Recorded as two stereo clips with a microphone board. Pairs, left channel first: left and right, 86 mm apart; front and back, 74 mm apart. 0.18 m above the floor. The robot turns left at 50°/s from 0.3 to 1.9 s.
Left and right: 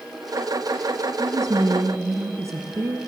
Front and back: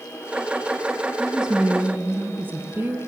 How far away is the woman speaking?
About 1.4 m.